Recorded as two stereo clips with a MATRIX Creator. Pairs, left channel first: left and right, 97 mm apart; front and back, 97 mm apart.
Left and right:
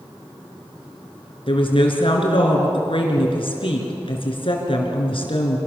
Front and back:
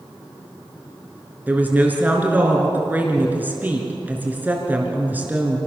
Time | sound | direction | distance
1.5 | a woman speaking | 110° left | 4.5 m